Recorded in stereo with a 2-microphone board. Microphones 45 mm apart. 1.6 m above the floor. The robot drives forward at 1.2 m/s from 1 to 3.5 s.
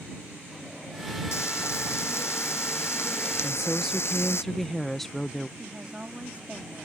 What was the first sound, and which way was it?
Frying, 75° left (ahead or behind).